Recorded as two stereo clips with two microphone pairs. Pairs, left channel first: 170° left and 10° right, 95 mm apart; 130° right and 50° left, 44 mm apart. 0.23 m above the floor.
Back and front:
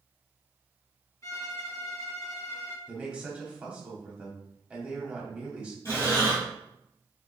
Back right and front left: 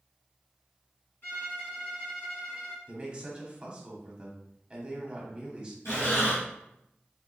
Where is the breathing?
135° right, 1.9 m.